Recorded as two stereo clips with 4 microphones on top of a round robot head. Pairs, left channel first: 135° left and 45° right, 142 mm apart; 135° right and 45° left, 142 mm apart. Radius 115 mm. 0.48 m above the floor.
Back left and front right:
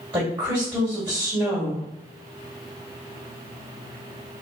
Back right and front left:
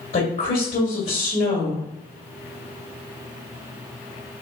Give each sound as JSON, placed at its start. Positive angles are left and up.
{"t": 0.1, "sound": "a woman speaking", "azimuth_deg": -115, "distance_m": 2.0}